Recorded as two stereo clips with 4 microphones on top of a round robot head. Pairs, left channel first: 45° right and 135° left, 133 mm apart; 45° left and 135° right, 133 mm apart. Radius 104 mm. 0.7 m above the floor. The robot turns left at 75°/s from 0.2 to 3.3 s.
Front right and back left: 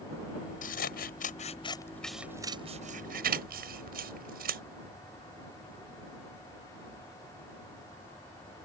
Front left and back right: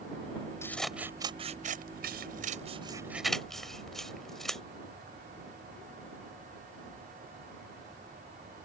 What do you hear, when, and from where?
0.6 s scissors: 25° right; by 4.6 s 135° left